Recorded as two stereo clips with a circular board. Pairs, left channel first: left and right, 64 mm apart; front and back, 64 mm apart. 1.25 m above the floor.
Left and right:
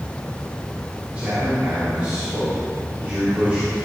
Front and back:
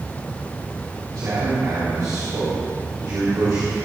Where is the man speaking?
160° right, 3 m.